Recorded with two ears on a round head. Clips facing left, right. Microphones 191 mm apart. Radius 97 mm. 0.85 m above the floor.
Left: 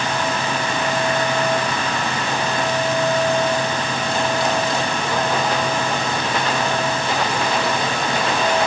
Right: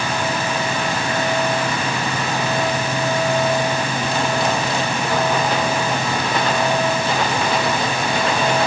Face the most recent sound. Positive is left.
No sound to turn to.